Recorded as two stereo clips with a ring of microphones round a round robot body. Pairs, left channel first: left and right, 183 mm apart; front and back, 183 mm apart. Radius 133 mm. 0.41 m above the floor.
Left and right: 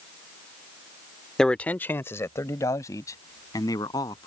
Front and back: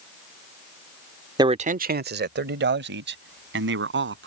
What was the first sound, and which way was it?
A man speaking, 175° left.